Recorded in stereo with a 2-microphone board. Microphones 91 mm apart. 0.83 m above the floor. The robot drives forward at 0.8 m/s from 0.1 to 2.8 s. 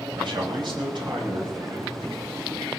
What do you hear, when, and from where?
0.2 s a man speaking: 65° right (ahead or behind), 5 m; by 2.0 s 50° right (ahead or behind), 5.5 m